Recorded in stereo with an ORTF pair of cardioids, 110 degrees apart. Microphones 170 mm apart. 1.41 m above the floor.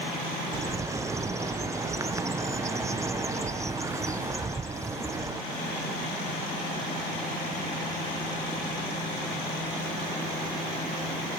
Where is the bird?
20° right, 0.7 m.